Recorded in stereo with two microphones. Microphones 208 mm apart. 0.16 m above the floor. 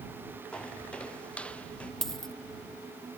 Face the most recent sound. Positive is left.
turn(degrees=0)  # may be behind; listen again after turning